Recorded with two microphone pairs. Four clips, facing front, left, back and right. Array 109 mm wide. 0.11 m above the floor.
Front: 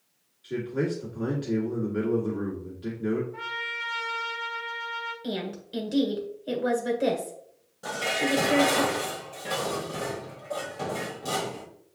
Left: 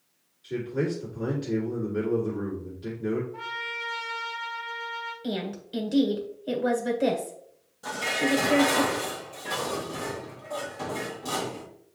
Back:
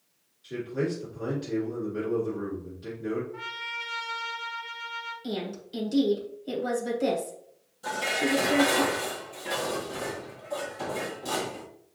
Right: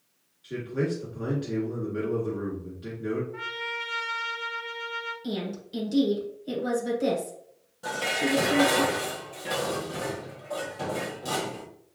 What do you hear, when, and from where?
0.4 s a man speaking: 35° right, 1.6 m
3.3 s a trumpet: 90° right, 2.5 m
5.2 s a woman speaking: 35° left, 1.4 m
7.8 s dishes clattering: 35° right, 1.8 m